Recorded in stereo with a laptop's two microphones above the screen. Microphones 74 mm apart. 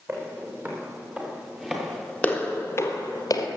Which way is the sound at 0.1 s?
35° right (ahead or behind).